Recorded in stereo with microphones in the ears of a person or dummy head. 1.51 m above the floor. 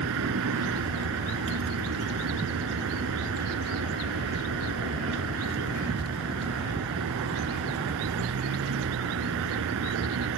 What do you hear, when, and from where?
0.0 s a vehicle: 70° right (ahead or behind)